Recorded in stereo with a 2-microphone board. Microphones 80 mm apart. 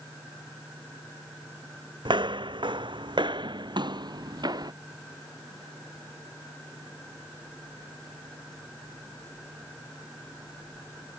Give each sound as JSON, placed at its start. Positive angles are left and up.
{"t": 2.0, "sound": "footsteps", "side_deg": -75}